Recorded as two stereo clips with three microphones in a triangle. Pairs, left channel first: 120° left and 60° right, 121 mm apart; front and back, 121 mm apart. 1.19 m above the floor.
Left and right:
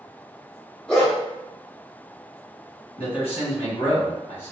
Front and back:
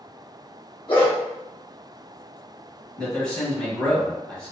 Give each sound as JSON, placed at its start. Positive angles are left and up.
{"t": 0.9, "sound": "a dog barking", "azimuth_deg": 40, "distance_m": 1.1}
{"t": 3.0, "sound": "a man speaking", "azimuth_deg": 85, "distance_m": 1.2}